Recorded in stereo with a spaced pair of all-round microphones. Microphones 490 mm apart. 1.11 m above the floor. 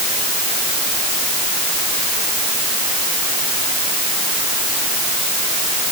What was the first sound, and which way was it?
Only background noise.